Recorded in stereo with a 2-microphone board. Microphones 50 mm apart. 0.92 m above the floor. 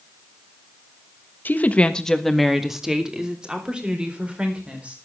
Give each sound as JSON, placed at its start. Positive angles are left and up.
{"t": 1.4, "sound": "a woman speaking", "side_deg": 40, "distance_m": 1.3}